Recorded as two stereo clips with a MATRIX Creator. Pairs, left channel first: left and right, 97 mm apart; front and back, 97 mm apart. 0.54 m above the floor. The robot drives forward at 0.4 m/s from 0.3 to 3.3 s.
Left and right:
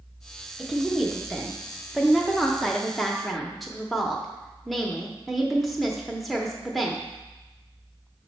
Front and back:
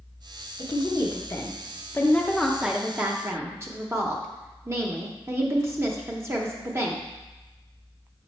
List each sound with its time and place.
0.6 s a woman speaking: straight ahead, 1.0 m; by 7.0 s straight behind, 0.7 m